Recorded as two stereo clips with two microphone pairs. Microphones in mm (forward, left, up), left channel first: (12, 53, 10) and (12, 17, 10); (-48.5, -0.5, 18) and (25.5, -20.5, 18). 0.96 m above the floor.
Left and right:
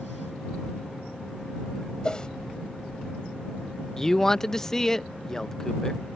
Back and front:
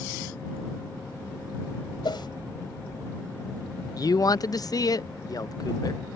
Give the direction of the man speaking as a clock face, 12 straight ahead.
7 o'clock.